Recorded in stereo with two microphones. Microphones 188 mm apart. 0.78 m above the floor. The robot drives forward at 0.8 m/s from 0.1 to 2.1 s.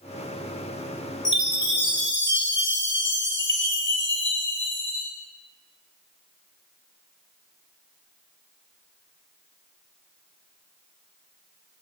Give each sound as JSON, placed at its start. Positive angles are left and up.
{"t": 1.2, "sound": "a chime", "side_deg": 85, "distance_m": 2.0}